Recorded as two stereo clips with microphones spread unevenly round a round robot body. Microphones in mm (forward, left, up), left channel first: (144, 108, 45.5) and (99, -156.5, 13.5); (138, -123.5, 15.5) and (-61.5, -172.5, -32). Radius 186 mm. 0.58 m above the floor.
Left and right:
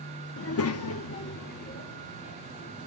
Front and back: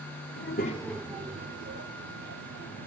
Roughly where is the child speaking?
Ahead left.